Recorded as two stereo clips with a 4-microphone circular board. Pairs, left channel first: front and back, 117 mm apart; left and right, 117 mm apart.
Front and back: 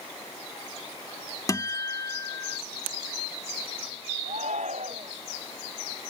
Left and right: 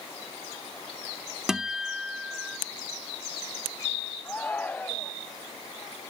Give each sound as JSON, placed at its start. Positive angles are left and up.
{"t": 1.5, "sound": "a guitar", "azimuth_deg": -10}
{"t": 4.2, "sound": "a shout", "azimuth_deg": 165}